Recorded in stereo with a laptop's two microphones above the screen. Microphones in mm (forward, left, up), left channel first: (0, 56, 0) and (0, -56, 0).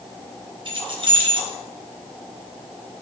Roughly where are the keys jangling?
Right.